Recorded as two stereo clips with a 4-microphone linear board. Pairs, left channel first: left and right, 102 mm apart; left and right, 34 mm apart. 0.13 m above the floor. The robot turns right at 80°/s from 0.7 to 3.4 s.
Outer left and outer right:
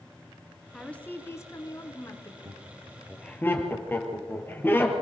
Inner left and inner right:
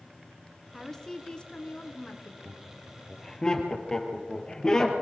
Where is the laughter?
45° right (ahead or behind), 3.5 m; by 4.9 s 20° left (ahead or behind), 3.5 m.